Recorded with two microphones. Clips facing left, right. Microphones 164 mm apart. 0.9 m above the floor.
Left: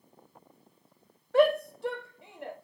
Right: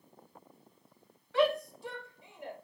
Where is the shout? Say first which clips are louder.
Left 5 dB; 45° left (ahead or behind), 1.0 m; by 2.5 s 70° left (ahead or behind), 2.5 m.